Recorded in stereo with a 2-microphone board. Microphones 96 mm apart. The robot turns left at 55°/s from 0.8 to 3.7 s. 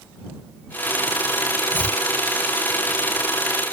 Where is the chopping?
20° left (ahead or behind); by 2.0 s 5° left (ahead or behind).